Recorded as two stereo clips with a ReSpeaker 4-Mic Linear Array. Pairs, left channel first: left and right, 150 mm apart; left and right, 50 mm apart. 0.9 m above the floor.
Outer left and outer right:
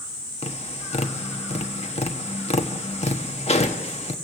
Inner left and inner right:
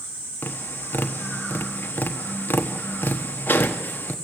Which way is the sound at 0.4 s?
45° left (ahead or behind).